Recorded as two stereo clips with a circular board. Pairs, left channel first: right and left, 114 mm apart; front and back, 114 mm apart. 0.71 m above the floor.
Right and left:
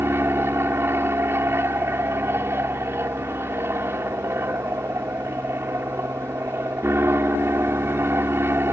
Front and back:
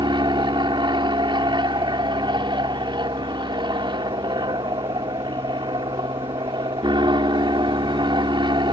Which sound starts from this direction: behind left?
An aircraft, at 0.0 s.